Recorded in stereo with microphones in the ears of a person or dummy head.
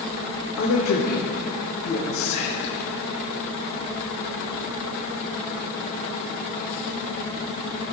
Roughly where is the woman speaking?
Left.